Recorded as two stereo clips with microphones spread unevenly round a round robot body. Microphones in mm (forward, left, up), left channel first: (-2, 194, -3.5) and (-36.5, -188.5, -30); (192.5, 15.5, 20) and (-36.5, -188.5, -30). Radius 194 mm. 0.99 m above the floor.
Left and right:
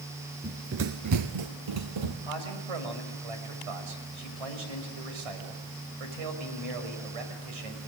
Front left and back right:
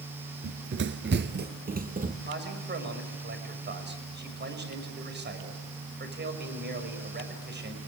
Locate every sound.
0.4 s running footsteps: 170° right, 1.0 m; by 2.1 s 70° right, 2.5 m
2.2 s a man speaking: 85° right, 5.5 m